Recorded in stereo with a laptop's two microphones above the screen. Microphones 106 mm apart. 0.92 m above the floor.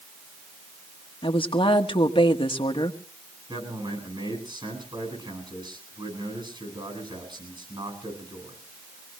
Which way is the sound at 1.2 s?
55° left (ahead or behind).